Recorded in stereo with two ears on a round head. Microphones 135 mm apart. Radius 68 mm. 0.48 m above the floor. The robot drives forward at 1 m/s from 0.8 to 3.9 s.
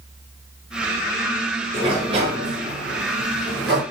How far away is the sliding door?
About 5 m.